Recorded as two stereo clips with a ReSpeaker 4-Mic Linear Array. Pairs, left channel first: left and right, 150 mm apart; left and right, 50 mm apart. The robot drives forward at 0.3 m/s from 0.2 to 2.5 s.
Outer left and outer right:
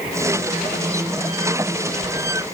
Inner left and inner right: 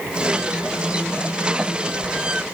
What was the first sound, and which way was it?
Only background noise.